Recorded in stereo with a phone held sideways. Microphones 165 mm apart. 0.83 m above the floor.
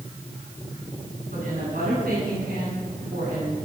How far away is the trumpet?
No trumpet in this recording.